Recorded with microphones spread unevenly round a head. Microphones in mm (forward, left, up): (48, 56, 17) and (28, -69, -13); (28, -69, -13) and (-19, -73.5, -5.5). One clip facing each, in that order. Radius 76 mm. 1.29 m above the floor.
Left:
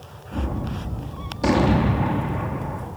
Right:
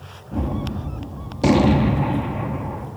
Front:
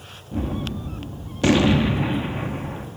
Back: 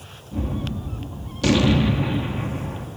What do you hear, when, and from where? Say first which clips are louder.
0.3 s a gunshot: right 3 dB, front 1 dB; 35° right, 0.7 m